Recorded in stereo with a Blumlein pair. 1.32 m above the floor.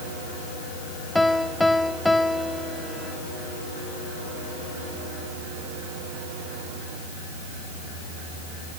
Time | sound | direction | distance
1.1 | a piano | 5° left | ?